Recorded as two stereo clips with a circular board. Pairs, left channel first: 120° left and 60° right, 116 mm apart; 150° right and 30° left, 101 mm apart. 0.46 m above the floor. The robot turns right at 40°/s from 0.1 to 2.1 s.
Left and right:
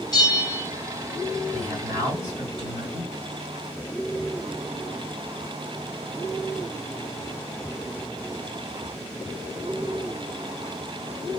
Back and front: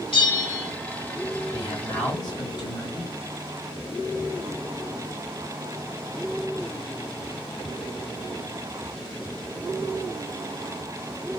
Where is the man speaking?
130° right, 2.5 m; by 3.2 s 110° right, 2.5 m.